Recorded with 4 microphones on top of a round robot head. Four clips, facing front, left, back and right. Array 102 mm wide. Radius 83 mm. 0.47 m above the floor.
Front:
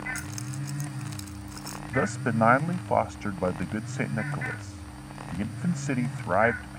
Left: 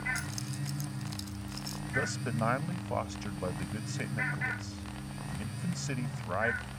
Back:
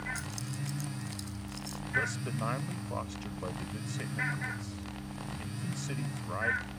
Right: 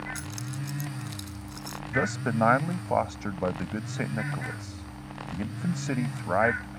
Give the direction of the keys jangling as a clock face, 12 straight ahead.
1 o'clock.